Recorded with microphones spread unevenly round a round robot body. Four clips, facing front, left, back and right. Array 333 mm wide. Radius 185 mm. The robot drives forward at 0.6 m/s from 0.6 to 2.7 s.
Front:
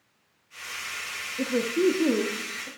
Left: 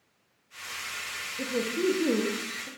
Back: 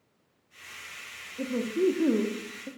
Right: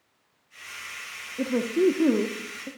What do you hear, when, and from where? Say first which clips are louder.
1.4 s a woman speaking: right 6 dB, front 3 dB; 60° right, 1.3 m; by 2.7 s 110° right, 1.3 m